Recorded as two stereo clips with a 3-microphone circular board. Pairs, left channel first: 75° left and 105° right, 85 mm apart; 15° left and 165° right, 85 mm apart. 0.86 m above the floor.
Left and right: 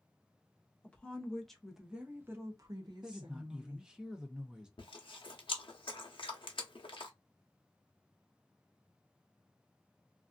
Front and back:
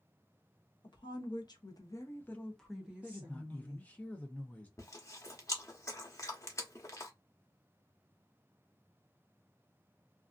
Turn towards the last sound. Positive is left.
turn(degrees=70)